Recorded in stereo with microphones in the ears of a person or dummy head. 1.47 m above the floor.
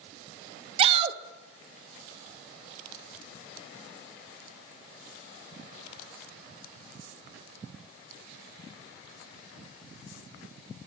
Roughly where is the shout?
Right.